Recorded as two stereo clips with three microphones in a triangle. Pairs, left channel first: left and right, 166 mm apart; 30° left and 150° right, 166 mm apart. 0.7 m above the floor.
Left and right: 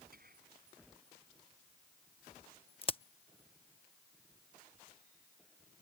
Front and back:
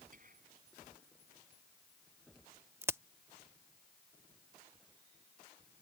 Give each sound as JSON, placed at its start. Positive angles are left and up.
{"t": 0.1, "sound": "whispering", "azimuth_deg": -115}
{"t": 2.8, "sound": "a crack", "azimuth_deg": 140}